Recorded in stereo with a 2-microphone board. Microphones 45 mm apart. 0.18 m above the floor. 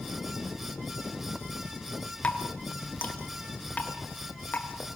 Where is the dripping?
35° left (ahead or behind), 1.9 m.